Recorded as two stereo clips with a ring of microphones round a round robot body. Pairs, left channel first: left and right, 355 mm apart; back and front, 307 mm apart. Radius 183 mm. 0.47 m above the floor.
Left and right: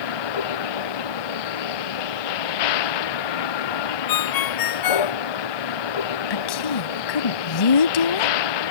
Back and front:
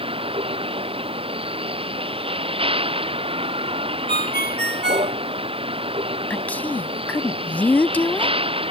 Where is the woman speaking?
95° left.